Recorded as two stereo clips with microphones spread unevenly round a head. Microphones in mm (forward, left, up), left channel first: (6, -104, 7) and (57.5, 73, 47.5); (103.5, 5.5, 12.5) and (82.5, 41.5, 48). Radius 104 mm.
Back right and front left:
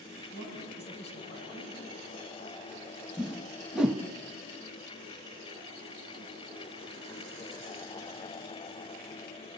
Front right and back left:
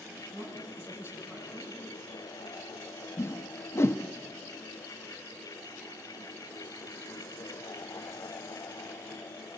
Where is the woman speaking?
75° right, 9 m.